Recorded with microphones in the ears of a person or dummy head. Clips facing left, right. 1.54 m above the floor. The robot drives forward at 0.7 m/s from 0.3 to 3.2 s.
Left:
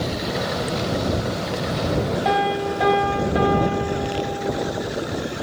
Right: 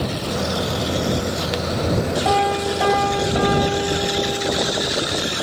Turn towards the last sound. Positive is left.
turn(degrees=5)  # may be behind; listen again after turning